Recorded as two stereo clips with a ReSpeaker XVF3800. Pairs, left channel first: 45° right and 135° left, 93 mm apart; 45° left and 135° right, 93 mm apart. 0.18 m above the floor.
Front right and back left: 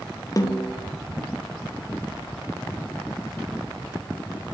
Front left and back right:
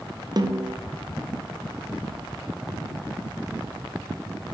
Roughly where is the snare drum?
Right.